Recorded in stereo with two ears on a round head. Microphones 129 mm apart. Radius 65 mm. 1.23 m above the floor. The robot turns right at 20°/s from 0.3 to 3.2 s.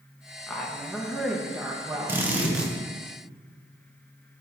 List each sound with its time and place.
0.5 s a woman speaking: 170° left, 1.1 m; by 2.7 s 145° right, 1.1 m
2.1 s a drill: 15° right (ahead or behind), 1.1 m; by 2.7 s 5° right (ahead or behind), 1.1 m